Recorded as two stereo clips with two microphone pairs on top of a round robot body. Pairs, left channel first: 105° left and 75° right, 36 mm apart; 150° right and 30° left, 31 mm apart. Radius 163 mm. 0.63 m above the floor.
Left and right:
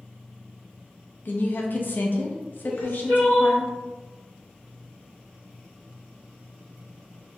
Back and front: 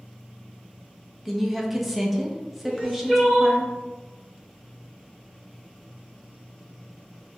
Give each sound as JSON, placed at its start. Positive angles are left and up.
{"t": 1.2, "sound": "a woman speaking", "azimuth_deg": 125, "distance_m": 0.9}
{"t": 2.6, "sound": "crying", "azimuth_deg": 125, "distance_m": 2.0}